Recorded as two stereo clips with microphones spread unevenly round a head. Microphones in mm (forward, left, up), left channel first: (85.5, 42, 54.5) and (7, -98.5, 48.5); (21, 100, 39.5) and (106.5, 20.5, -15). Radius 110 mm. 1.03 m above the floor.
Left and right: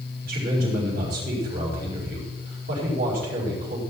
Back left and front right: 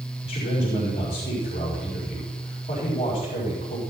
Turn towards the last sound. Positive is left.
turn(degrees=-165)